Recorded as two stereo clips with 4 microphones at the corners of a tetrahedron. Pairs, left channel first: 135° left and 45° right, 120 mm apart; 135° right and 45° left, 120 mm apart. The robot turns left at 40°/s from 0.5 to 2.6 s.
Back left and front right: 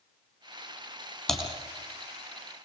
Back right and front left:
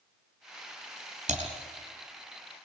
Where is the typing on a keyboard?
45° left, 4 m; by 1.5 s 40° left, 4 m.